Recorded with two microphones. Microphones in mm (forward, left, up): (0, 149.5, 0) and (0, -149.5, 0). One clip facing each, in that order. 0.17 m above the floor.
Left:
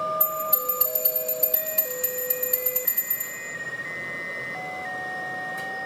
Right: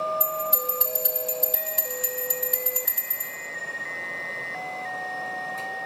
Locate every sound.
0.2 s a bell: 25° left (ahead or behind), 0.7 m